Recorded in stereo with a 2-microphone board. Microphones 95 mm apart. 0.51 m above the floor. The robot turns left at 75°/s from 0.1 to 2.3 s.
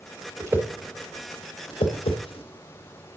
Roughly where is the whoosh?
Right.